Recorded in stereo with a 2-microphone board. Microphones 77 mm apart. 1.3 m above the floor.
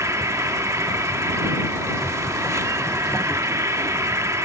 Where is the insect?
40° right (ahead or behind).